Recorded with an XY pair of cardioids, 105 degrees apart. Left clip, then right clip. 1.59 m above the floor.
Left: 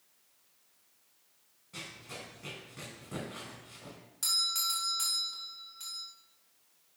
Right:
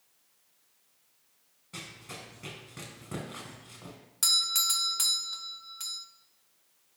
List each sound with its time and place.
1.7 s running footsteps: 45° right, 5 m
4.2 s a doorbell: 55° right, 0.9 m